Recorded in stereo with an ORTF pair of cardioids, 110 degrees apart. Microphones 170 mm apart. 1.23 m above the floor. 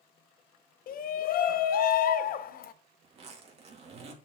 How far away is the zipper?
About 2 m.